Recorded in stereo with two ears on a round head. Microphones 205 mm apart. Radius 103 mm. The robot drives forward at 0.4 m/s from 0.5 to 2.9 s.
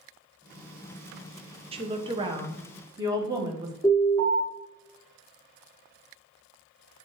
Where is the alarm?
5° left (ahead or behind), 3.5 m.